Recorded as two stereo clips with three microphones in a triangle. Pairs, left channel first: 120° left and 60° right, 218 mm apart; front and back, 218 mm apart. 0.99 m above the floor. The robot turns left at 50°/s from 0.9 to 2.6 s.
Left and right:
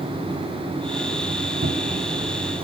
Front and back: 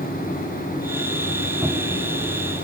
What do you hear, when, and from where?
1.6 s a cupboard door: 90° right, 1.2 m; by 2.2 s 120° right, 1.2 m